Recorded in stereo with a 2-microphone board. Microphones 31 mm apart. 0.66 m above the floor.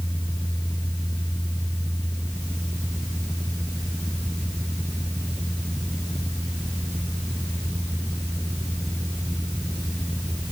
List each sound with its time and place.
Only background noise.